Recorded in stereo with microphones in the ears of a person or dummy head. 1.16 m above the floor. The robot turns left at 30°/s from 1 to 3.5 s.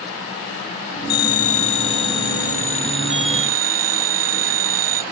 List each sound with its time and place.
1.1 s a phone ringing: 55° left; by 5.0 s 20° right